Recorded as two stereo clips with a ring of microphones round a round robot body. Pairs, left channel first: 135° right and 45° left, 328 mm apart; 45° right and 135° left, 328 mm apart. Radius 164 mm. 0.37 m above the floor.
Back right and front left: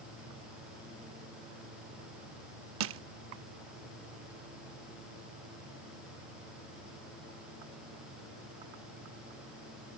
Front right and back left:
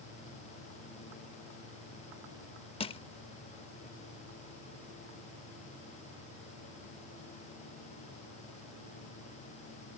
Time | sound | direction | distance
2.8 | crushing | 20° left | ?